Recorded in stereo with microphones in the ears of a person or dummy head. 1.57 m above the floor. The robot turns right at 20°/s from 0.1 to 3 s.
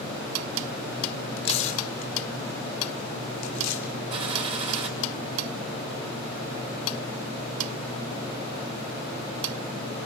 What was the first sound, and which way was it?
Tearing paper, 35° left (ahead or behind).